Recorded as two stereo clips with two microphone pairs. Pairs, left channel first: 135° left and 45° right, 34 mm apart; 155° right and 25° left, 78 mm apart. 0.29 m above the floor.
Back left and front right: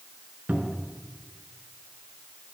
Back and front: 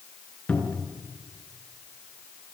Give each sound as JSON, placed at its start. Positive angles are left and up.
{"t": 0.5, "sound": "a cupboard door", "azimuth_deg": -80, "distance_m": 4.5}